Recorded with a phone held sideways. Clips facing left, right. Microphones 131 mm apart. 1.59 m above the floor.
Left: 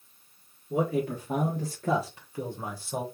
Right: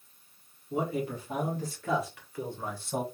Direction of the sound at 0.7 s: 65° left (ahead or behind).